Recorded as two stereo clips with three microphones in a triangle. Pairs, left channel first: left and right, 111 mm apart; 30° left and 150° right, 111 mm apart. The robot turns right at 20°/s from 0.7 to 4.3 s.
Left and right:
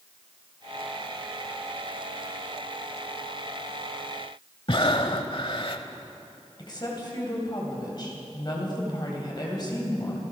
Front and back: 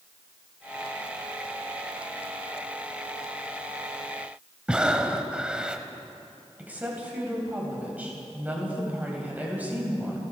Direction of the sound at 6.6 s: 135° left.